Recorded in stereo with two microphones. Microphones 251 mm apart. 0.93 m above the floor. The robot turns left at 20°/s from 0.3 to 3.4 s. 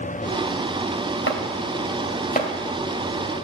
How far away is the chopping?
About 2 m.